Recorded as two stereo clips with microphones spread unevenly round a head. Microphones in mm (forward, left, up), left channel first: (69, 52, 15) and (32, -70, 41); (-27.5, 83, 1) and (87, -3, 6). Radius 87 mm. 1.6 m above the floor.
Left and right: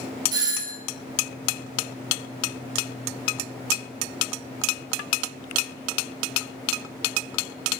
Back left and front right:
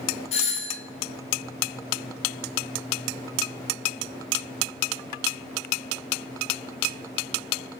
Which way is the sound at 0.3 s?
175° right.